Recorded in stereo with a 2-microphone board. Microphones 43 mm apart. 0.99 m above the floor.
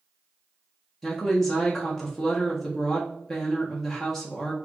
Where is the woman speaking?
10° left (ahead or behind), 1.0 m.